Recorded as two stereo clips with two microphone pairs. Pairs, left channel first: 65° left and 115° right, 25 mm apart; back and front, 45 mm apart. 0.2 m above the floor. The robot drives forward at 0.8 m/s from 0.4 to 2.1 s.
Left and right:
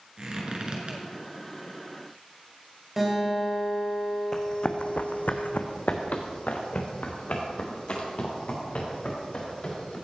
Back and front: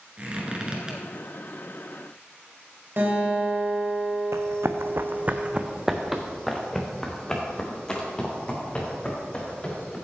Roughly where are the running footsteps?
Ahead.